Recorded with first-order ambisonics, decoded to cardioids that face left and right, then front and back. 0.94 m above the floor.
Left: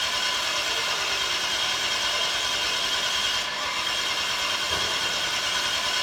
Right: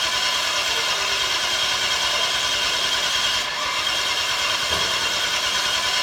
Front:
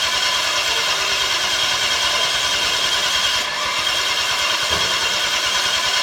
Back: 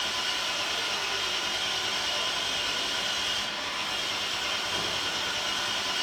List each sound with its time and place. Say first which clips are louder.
0.0 s an engine running: right 4 dB, front 11 dB; 15° right, 1.4 m